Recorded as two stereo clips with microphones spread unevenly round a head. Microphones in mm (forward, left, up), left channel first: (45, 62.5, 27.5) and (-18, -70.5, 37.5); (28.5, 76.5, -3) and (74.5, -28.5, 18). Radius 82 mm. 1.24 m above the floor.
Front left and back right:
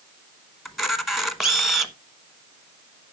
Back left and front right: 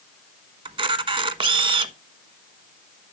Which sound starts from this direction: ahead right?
A camera shutter, at 0.7 s.